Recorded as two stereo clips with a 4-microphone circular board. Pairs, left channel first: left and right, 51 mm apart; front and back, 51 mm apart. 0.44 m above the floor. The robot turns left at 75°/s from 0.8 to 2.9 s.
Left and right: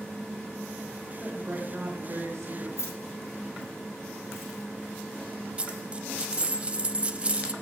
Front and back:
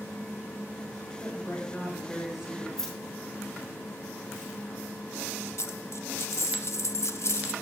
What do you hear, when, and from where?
1.2 s a woman speaking: 10° right, 6.5 m; by 2.7 s 120° right, 6.5 m
2.8 s keys jangling: 80° left, 4 m; by 6.6 s 70° left, 4 m
5.6 s a dropped coin: 25° right, 0.8 m